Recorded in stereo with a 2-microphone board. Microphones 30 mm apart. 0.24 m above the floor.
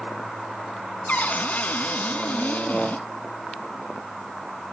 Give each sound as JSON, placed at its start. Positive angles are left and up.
{"t": 1.1, "sound": "a cupboard door", "side_deg": 60, "distance_m": 1.2}